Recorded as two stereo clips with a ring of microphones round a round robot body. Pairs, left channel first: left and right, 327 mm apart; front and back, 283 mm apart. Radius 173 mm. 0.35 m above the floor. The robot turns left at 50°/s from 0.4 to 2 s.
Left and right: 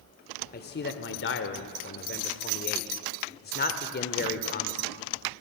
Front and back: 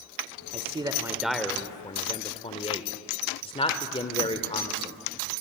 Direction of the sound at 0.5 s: 130° left.